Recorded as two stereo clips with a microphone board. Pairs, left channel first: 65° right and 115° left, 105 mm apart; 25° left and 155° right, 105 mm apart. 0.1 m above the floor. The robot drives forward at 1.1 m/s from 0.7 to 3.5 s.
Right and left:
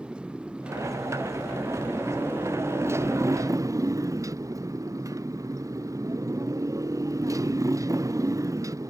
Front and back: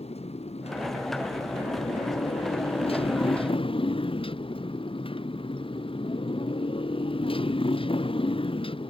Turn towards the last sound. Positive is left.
turn(degrees=55)